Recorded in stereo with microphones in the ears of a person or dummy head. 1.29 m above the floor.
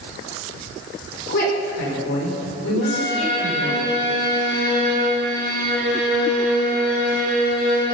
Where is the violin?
70° left (ahead or behind), 5.5 m.